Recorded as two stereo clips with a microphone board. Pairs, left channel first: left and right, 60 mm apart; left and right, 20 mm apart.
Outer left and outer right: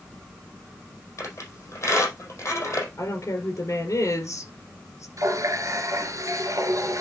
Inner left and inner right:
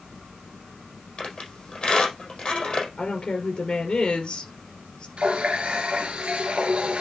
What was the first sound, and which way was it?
A squeak, 50° left (ahead or behind).